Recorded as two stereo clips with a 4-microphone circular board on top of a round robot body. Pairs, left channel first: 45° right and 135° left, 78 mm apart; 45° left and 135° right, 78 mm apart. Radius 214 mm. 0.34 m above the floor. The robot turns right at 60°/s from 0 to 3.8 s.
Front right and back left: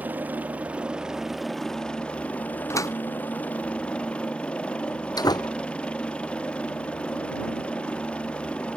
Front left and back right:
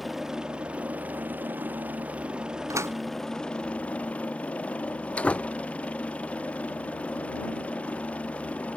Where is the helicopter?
135° left; by 8.8 s 5° left.